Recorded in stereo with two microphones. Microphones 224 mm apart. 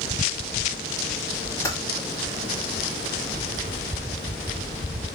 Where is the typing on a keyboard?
15° left (ahead or behind), 1.5 m.